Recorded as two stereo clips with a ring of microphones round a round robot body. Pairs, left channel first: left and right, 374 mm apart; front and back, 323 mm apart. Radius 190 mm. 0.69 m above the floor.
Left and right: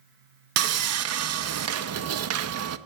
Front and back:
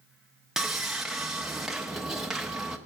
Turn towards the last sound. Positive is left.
turn(degrees=-90)